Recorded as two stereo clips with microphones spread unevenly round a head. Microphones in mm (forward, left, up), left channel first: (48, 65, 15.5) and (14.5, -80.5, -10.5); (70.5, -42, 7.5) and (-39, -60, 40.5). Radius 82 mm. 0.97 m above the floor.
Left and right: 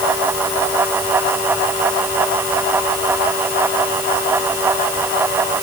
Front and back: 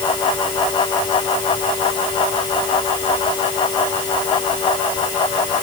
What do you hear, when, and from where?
Only background noise.